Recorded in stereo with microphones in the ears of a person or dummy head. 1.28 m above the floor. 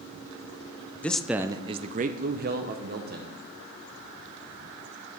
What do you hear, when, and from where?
1.0 s a man speaking: 10° left (ahead or behind), 0.6 m; by 3.4 s 55° right (ahead or behind), 1.3 m